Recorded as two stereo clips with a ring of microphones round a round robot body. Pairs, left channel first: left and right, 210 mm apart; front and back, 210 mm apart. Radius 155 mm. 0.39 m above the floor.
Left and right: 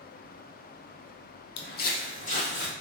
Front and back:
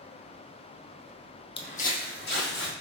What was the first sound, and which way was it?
Footsteps, 65° left.